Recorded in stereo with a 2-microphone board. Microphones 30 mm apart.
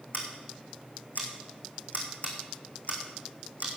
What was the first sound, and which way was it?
Scissors, 65° left (ahead or behind).